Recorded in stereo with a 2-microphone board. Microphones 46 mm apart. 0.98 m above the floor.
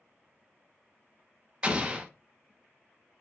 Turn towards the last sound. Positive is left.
turn(degrees=-25)  # may be behind; listen again after turning